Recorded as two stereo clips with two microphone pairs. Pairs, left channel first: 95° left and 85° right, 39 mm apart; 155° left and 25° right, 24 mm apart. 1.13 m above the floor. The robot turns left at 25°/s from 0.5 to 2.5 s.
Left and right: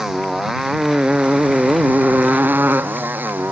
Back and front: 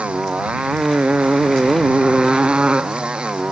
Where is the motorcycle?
10° right; by 3.5 s 60° right.